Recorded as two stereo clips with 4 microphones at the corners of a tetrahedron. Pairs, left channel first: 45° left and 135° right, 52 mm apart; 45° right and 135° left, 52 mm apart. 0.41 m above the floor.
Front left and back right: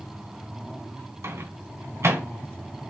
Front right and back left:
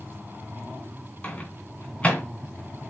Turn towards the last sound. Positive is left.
turn(degrees=-110)